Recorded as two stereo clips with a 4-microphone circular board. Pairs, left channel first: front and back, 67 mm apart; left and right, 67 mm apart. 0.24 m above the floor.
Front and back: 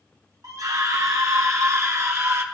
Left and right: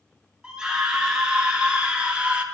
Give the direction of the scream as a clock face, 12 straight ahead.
6 o'clock.